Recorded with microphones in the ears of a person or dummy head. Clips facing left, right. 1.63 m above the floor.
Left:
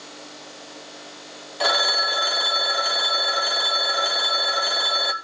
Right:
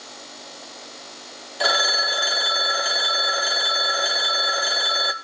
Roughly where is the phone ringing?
Centre.